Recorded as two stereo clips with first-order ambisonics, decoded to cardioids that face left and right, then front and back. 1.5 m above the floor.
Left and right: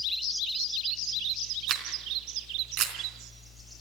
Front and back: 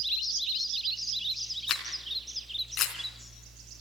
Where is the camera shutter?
55° right, 3 m.